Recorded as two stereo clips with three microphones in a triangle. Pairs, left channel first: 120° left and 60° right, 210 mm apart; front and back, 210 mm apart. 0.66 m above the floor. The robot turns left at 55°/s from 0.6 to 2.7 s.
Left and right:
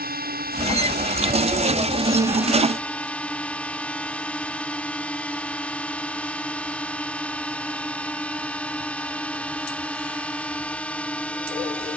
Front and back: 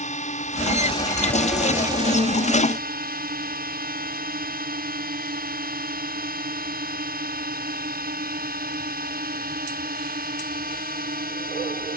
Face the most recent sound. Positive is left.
turn(degrees=-155)